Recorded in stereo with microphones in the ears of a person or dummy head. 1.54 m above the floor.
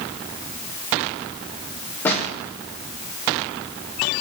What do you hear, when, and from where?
2.0 s a snare drum: 10° left (ahead or behind), 3.5 m